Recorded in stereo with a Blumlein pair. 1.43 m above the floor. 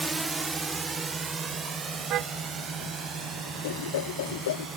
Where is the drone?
10° right; by 4.8 s 20° right.